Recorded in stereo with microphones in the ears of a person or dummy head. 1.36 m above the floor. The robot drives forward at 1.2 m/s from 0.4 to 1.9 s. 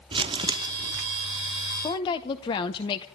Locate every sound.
0.1 s crumpling: 25° right (ahead or behind), 0.7 m; by 1.0 s 10° right (ahead or behind), 1.4 m
1.8 s a woman speaking: 25° left (ahead or behind), 0.7 m; by 3.0 s 30° left (ahead or behind), 0.6 m